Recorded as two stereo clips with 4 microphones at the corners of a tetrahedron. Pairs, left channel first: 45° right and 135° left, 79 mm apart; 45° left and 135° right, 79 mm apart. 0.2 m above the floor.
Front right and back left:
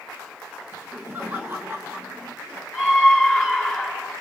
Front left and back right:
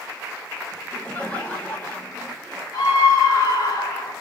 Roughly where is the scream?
Ahead left.